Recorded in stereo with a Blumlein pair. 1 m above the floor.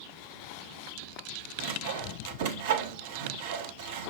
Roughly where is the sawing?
Ahead right.